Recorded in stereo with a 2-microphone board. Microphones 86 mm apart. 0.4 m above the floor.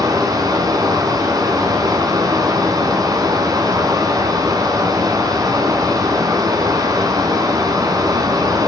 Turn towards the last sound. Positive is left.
turn(degrees=-45)  # may be behind; listen again after turning